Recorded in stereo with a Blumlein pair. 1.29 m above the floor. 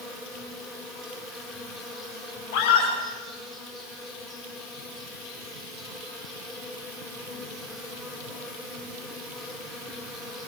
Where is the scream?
50° left, 8.5 m.